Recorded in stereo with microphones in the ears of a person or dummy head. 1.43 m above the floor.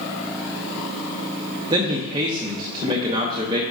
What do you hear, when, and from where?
1.7 s a man speaking: 20° right (ahead or behind), 0.7 m